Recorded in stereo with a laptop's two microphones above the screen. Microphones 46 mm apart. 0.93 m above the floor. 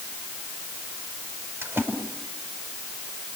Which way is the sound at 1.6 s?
70° right (ahead or behind).